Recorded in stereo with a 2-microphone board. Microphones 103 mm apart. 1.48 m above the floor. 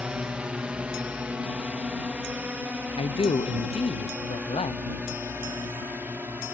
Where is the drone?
10° right (ahead or behind); by 6.5 s 15° right (ahead or behind).